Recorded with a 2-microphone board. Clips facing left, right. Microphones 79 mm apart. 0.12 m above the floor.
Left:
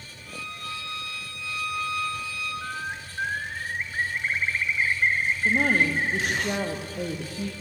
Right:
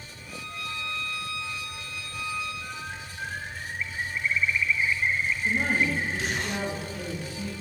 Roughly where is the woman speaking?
Left.